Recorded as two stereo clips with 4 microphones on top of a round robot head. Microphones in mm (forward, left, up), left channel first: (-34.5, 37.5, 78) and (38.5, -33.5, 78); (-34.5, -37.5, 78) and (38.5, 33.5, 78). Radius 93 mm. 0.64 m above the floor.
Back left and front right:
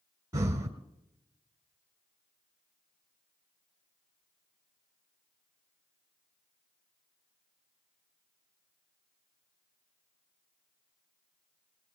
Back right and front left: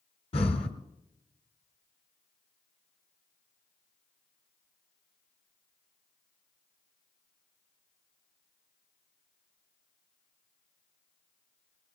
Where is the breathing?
110° right, 1.3 m.